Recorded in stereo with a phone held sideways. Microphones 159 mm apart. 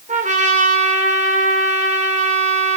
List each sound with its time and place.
0.1 s a trumpet: 50° right (ahead or behind), 1.7 m